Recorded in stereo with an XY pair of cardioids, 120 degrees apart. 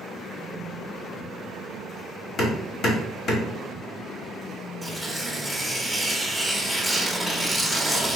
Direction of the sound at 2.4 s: 50° left.